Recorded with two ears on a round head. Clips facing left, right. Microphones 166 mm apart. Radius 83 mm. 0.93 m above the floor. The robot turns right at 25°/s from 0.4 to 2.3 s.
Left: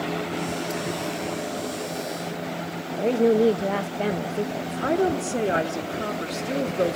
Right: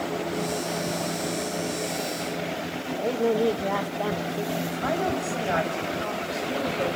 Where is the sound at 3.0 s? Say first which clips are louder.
Left 5 dB; 25° left (ahead or behind), 0.7 m.